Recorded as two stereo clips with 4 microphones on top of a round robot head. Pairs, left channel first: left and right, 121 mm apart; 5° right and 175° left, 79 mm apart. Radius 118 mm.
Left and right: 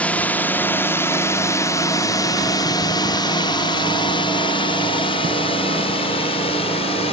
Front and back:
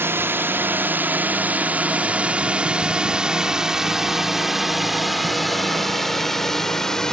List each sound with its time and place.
0.0 s a drone: 160° left; by 7.1 s 80° left